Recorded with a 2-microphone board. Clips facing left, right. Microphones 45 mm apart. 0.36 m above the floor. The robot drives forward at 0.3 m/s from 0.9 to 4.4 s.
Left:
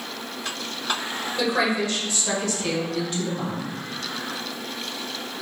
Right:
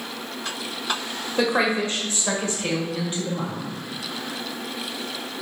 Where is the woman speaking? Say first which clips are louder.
Right 2 dB; 35° right (ahead or behind), 0.9 m; by 3.7 s 25° right (ahead or behind), 1.3 m.